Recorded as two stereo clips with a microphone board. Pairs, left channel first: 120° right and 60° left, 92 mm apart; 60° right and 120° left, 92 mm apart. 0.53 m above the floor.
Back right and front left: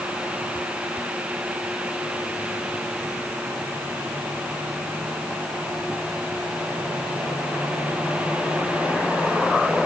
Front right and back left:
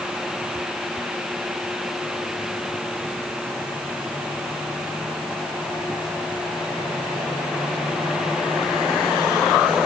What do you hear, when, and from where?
Only background noise.